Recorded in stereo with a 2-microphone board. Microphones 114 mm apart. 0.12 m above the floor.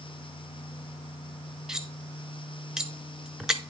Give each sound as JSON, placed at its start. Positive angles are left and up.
{"t": 1.7, "sound": "cutlery clinking", "side_deg": -5, "distance_m": 0.8}